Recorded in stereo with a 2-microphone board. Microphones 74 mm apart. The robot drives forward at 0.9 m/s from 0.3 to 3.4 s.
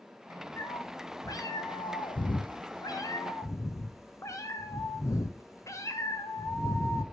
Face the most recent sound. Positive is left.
turn(degrees=40)  # may be behind; listen again after turning